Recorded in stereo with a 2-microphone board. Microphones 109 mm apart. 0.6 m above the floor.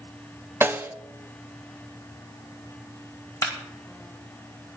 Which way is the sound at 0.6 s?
20° right (ahead or behind).